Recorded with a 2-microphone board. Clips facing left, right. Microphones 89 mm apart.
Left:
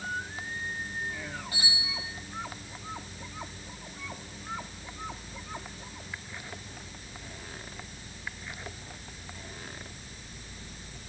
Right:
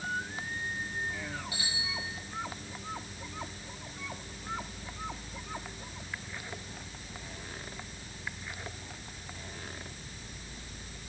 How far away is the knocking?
I don't hear knocking.